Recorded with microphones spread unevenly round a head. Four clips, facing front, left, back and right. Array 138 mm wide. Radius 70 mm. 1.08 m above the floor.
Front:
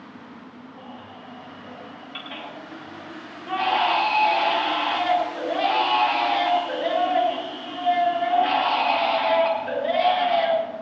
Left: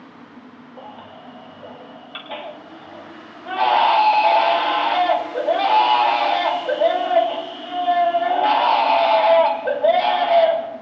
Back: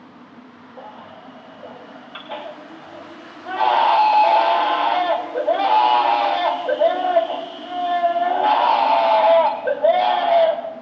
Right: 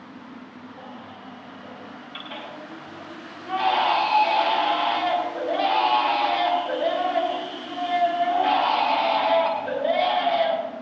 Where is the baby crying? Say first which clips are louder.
Left 5 dB, back 6 dB; 145° left, 3 m.